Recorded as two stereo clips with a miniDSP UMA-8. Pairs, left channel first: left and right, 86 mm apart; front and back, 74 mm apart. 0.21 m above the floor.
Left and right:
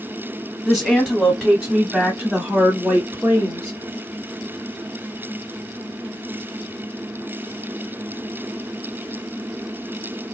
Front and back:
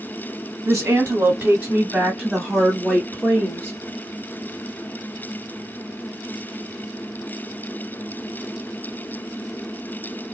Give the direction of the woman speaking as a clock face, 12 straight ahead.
6 o'clock.